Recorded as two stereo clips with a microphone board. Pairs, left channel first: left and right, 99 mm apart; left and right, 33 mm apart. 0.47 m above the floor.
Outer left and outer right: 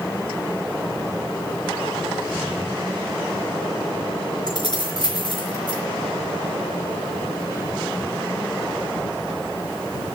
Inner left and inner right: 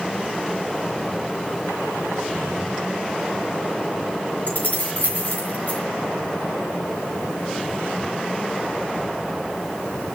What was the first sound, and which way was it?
Keys jangling, 50° left (ahead or behind).